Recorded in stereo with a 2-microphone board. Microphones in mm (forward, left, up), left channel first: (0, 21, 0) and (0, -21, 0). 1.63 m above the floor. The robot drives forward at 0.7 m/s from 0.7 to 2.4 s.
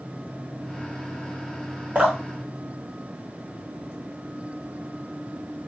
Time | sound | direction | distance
1.9 | dripping | 30° right (ahead or behind) | 1.3 m